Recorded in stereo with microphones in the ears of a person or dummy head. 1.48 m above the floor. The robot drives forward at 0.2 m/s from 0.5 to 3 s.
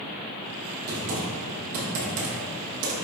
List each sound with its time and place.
0.9 s typing on a keyboard: 60° right (ahead or behind), 0.9 m; by 3.0 s 80° right, 0.8 m